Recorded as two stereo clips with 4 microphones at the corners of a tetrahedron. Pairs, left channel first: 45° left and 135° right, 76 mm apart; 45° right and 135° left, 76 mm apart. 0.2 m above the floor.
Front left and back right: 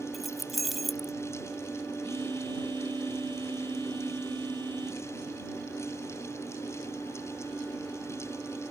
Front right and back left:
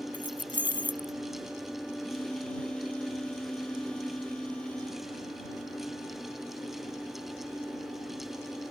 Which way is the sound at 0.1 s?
135° left.